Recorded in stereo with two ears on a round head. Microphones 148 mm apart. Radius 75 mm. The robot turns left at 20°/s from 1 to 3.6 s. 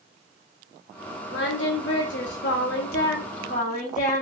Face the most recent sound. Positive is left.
turn(degrees=50)